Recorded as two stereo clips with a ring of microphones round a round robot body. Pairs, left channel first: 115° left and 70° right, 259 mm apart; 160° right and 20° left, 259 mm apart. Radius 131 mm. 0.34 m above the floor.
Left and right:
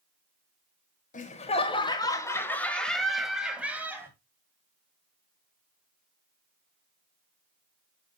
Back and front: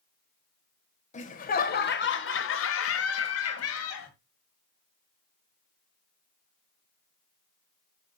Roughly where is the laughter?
Behind left.